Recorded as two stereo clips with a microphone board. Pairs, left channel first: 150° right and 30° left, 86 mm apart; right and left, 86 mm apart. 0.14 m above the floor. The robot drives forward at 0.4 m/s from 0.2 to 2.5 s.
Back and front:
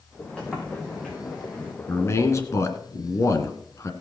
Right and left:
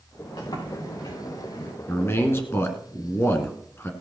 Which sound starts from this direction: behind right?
A man speaking, at 1.9 s.